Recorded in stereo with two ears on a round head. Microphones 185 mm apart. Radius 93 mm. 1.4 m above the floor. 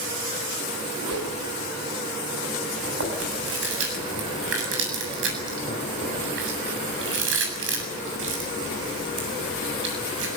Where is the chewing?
65° right (ahead or behind), 7.5 m.